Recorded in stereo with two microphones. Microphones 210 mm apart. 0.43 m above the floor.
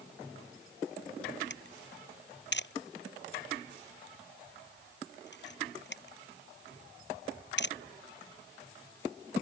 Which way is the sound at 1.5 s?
55° left (ahead or behind).